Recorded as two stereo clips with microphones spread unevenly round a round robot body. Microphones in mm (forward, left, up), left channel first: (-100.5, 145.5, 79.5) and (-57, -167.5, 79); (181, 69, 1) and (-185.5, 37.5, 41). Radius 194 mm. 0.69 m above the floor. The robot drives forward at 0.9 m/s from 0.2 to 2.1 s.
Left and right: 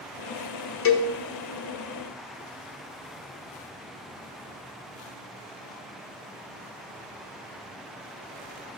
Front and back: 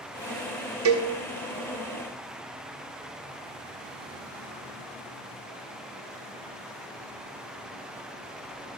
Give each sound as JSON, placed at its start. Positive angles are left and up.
{"t": 0.8, "sound": "a cowbell", "azimuth_deg": 135, "distance_m": 1.0}